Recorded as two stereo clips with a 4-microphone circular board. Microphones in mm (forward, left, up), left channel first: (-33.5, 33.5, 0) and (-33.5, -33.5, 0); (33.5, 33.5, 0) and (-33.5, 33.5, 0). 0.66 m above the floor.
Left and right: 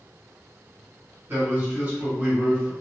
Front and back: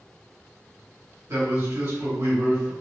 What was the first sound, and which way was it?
A man speaking, 145° right.